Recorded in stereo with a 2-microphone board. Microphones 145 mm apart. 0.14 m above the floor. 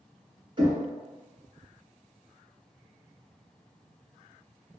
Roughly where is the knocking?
Right.